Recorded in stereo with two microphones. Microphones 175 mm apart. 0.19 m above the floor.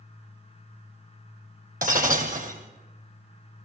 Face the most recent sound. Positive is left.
turn(degrees=-50)  # may be behind; listen again after turning